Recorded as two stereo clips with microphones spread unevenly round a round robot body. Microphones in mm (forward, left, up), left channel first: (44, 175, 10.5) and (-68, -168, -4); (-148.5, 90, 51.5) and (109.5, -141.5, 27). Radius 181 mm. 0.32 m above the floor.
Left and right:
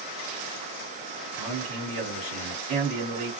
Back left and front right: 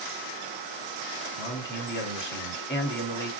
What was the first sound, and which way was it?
A man speaking, 170° right.